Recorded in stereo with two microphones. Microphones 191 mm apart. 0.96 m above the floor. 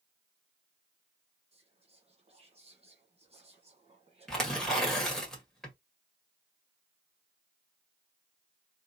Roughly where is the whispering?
Right.